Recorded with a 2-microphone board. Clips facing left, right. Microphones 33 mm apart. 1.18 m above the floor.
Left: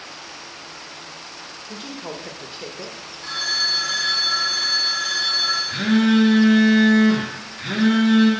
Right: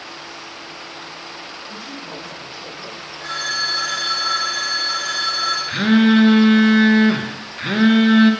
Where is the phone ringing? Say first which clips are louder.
Even; 65° right (ahead or behind), 3.5 m.